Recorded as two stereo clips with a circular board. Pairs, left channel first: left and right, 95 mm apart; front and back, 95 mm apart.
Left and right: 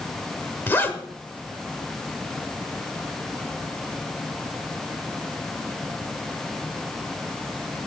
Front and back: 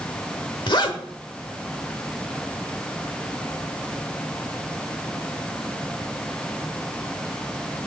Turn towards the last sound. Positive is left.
turn(degrees=25)